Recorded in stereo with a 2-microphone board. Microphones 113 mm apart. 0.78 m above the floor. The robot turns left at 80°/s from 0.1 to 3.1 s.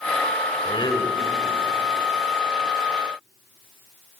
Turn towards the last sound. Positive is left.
turn(degrees=-140)